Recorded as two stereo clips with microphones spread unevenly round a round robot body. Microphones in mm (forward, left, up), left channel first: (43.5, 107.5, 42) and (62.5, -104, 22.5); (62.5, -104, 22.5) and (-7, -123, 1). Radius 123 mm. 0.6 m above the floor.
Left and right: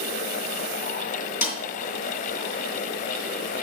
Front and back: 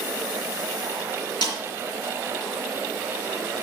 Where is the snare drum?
155° left, 3 m.